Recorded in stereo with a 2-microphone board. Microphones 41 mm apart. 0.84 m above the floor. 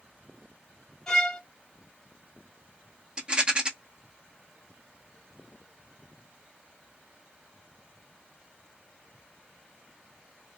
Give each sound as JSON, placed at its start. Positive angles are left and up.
{"t": 1.1, "sound": "a violin", "side_deg": 15, "distance_m": 2.0}
{"t": 3.2, "sound": "a rattle", "side_deg": -25, "distance_m": 0.9}